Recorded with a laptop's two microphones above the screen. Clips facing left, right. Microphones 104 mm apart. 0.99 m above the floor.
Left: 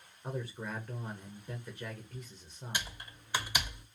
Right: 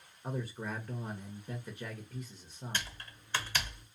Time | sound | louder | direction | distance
0.2 | a man speaking | right 1 dB | 5° right (ahead or behind) | 0.6 m
2.7 | typing on a keyboard | left 1 dB | 10° left (ahead or behind) | 0.5 m